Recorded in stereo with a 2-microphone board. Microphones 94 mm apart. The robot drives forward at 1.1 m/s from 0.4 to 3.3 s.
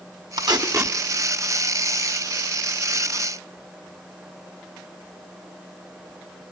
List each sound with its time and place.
0.4 s tape being pulled: 55° right (ahead or behind), 0.8 m; by 1.0 s 35° right (ahead or behind), 1.1 m